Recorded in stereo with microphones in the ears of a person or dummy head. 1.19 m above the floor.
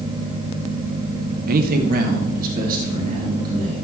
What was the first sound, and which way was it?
A man speaking, 45° right (ahead or behind).